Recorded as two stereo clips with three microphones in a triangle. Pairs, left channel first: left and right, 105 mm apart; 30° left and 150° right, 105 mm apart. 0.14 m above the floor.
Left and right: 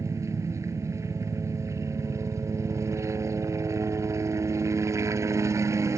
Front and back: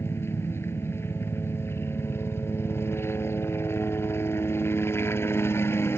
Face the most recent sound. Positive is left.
turn(degrees=-30)